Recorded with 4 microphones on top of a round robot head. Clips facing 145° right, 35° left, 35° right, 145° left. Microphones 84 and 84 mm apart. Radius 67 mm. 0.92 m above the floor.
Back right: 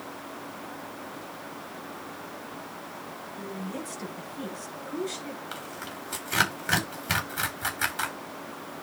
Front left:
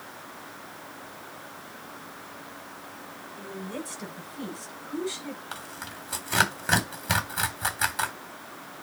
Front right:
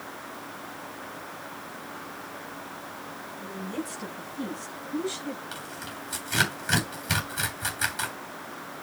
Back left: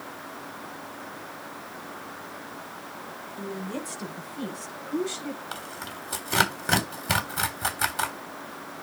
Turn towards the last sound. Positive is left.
turn(degrees=110)